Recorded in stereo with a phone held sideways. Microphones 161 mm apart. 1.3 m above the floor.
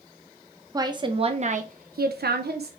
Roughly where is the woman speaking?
Right.